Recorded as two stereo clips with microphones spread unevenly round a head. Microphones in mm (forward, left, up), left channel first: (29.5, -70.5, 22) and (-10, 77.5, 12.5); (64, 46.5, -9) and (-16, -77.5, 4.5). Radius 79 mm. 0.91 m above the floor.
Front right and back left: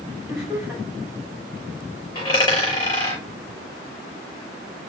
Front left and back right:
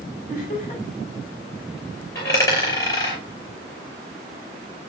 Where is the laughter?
20° left, 5 m.